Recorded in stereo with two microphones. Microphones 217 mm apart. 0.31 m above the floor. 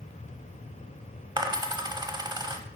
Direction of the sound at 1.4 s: 20° right (ahead or behind).